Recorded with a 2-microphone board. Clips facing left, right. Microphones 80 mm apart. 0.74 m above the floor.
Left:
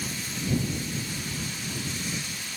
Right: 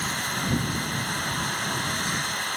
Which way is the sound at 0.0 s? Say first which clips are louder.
Right 5 dB; 65° right (ahead or behind).